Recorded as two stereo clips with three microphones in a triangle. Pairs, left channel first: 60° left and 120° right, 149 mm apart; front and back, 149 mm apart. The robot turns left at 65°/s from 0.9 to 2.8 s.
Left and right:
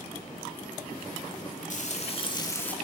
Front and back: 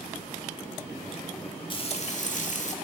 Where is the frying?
50° left, 1.8 m; by 2.8 s 20° right, 1.8 m.